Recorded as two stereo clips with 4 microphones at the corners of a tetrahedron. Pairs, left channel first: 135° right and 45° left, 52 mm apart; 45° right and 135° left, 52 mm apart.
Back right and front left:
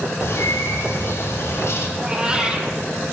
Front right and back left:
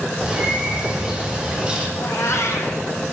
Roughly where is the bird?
Behind right.